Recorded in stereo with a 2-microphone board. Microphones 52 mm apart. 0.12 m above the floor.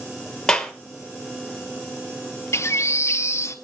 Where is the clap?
15° left (ahead or behind), 1.6 m.